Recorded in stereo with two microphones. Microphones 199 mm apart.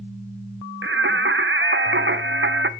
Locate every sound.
0.8 s singing: 70° right (ahead or behind), 0.6 m